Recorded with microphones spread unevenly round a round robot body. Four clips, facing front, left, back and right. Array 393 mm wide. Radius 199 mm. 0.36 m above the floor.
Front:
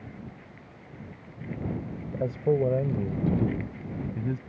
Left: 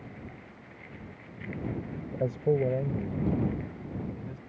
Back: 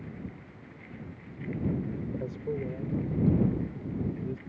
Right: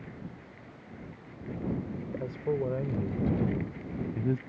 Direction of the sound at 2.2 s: 40° left.